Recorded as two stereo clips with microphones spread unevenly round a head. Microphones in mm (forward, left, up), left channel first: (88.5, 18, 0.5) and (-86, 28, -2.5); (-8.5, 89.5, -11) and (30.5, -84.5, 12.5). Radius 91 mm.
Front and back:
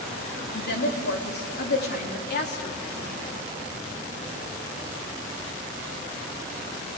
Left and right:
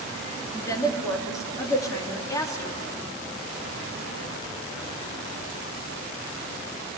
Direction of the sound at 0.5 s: 30° left.